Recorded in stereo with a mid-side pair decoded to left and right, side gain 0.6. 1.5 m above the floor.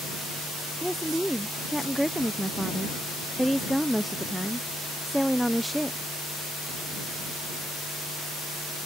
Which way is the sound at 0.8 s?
5° right.